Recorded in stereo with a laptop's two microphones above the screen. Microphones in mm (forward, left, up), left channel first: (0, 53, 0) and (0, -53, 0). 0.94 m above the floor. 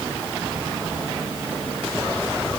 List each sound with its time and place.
Only background noise.